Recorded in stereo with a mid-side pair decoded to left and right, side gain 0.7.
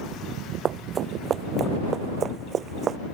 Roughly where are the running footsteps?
Ahead right.